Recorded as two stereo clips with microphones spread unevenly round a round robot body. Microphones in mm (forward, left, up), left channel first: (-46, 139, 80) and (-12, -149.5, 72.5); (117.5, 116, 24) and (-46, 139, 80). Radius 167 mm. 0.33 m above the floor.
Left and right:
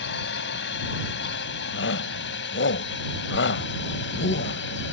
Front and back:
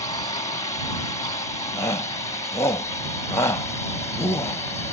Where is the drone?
45° left; by 4.9 s 50° left.